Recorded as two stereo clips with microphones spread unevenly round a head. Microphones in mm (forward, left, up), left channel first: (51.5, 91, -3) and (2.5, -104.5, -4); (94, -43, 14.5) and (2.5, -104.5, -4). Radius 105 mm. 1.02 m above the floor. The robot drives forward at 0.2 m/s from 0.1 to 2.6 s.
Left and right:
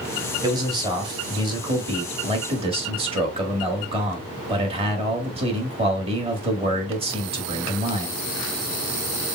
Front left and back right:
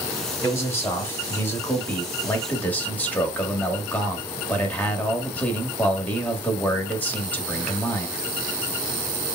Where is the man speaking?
35° right, 1.9 m; by 8.2 s 40° right, 1.6 m.